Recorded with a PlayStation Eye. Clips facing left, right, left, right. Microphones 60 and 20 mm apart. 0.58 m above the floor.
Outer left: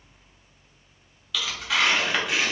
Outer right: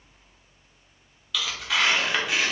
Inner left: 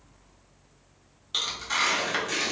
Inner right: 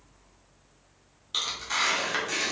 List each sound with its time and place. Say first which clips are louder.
1.3 s tearing paper: outer left 1 dB, inner left 1 dB; centre (ahead or behind), 0.6 m